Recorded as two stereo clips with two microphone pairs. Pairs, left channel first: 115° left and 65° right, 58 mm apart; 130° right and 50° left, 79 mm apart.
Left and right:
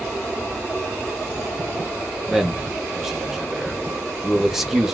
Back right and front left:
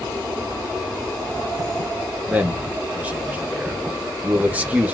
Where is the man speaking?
10° left, 0.9 m.